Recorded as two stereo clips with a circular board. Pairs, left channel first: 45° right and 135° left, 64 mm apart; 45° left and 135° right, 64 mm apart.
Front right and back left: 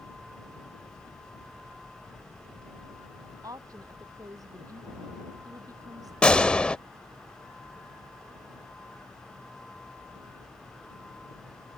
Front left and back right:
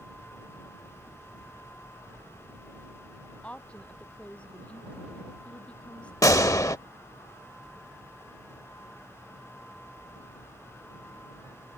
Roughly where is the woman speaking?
Behind left.